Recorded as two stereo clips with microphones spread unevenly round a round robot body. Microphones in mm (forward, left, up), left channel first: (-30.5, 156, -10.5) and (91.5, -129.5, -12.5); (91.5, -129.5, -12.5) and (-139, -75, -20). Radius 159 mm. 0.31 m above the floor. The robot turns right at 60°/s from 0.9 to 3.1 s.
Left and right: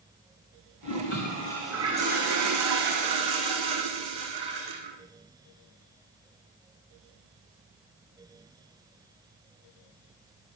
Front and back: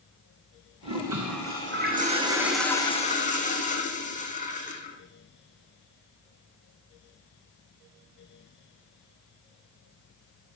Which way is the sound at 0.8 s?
155° left.